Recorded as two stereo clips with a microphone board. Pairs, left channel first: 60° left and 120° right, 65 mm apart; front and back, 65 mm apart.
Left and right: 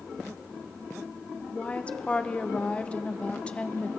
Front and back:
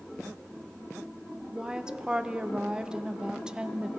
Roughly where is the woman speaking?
Behind left.